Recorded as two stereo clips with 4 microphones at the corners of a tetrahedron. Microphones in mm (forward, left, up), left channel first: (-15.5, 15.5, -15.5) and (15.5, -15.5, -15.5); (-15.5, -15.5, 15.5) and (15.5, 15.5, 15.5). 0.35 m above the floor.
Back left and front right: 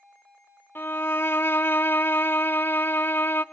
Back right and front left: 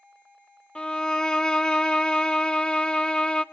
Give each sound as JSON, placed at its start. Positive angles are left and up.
{"t": 0.8, "sound": "a violin", "azimuth_deg": 160, "distance_m": 0.7}